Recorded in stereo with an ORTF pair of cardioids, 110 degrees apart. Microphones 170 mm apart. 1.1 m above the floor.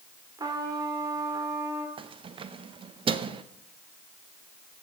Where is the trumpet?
25° right, 1.7 m.